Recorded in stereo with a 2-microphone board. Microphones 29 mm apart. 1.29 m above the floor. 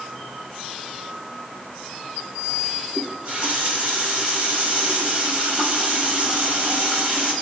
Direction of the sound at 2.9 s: 35° right (ahead or behind).